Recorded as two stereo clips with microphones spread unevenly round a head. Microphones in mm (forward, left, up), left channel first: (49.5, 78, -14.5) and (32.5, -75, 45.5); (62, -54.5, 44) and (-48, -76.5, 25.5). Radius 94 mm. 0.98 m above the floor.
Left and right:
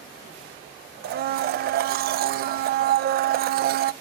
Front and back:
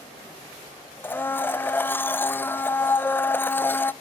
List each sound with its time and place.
1.0 s a blender: 65° right, 0.5 m